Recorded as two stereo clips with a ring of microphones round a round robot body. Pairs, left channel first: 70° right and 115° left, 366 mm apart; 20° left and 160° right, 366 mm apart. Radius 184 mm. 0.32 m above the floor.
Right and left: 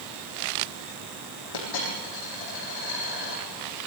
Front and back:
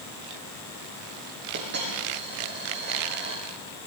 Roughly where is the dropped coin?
Right.